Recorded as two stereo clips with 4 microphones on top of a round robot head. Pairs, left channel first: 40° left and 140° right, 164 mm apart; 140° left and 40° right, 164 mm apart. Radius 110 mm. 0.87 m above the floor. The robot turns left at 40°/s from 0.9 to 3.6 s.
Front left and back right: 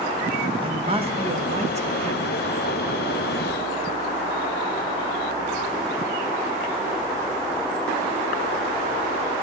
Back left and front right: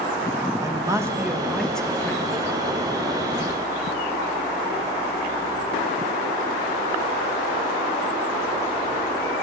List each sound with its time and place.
0.6 s a man speaking: 105° right, 1.0 m; by 2.2 s 160° right, 1.0 m